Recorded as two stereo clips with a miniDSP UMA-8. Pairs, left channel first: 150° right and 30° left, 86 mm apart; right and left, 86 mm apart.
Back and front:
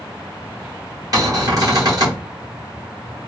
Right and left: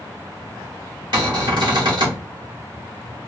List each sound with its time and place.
1.1 s a cupboard door: 65° left, 1.3 m